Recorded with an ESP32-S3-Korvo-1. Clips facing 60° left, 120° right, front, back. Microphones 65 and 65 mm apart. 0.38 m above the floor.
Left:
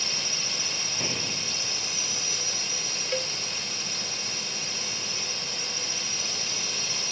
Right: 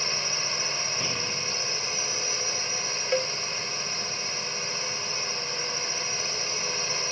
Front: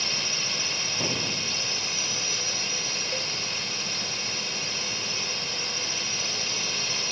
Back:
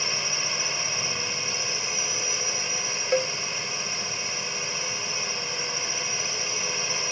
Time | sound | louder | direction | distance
0.0 | a drone | right 3 dB, back 1 dB | 130° right | ?
1.0 | an explosion | right 1 dB, front 1 dB | 10° right | ?
3.1 | a cowbell | right 5 dB, back 13 dB | 175° left | ?